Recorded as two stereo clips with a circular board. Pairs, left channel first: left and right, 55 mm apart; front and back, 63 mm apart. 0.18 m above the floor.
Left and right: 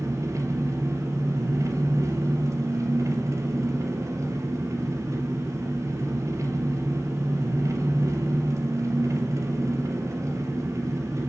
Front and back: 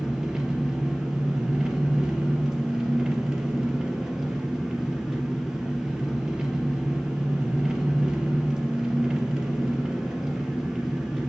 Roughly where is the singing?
No singing in this recording.